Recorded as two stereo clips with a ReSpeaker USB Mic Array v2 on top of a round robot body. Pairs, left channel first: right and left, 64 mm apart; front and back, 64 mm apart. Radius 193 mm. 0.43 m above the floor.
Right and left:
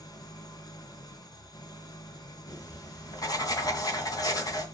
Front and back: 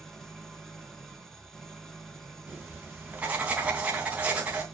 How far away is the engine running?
About 2.5 m.